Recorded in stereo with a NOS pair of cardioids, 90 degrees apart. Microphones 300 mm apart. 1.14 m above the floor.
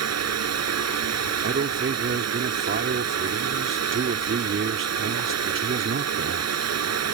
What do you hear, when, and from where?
0.0 s a fan: 60° right
1.4 s a man speaking: 45° right